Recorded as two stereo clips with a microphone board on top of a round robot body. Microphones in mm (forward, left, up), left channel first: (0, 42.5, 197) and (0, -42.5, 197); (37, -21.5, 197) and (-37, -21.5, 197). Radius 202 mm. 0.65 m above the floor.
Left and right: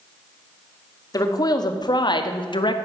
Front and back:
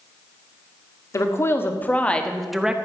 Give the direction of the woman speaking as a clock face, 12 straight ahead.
10 o'clock.